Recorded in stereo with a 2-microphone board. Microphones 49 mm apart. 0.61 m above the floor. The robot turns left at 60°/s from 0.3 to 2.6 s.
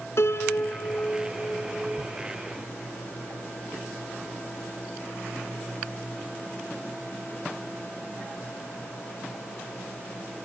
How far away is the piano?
About 1.0 m.